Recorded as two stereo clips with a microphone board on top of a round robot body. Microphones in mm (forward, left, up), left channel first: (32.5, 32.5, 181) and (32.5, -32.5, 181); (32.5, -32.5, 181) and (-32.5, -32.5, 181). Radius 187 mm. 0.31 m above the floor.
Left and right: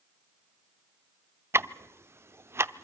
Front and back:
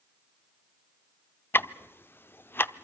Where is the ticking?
50° right, 0.8 m.